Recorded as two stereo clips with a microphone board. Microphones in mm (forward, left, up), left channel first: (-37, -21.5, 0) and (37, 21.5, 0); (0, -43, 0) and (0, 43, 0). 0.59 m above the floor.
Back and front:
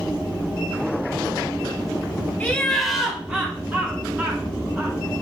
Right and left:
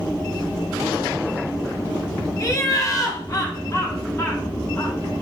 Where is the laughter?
90° right, 0.6 m; by 5.0 s 35° right, 1.8 m.